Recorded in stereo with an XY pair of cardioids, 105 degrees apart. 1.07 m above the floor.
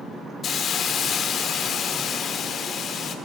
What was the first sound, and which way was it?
A hiss, 55° left.